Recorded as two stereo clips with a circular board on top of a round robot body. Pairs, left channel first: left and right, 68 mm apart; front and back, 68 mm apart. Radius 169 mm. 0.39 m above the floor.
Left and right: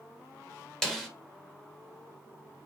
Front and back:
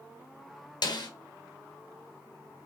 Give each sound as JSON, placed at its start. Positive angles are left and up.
{"t": 0.8, "sound": "a snare drum", "azimuth_deg": 5, "distance_m": 3.5}